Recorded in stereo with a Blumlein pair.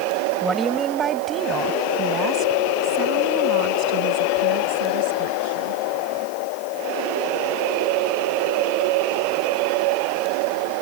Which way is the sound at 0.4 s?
15° right.